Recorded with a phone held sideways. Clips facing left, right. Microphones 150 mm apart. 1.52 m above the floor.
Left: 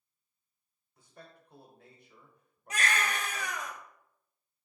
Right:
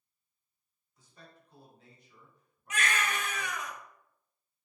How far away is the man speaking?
About 0.9 m.